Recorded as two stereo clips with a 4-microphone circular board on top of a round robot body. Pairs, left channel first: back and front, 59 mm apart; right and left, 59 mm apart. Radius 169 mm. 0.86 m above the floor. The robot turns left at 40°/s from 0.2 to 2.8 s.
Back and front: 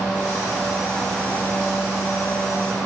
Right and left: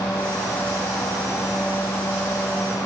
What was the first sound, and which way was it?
Only background noise.